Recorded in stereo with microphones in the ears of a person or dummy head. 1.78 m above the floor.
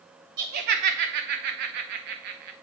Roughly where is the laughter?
Right.